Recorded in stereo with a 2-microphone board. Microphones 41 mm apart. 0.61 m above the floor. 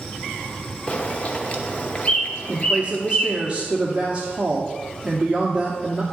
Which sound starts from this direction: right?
A woman speaking, at 2.5 s.